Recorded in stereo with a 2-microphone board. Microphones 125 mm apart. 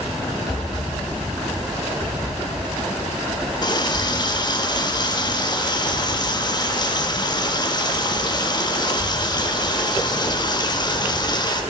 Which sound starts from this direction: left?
A running tap, at 3.6 s.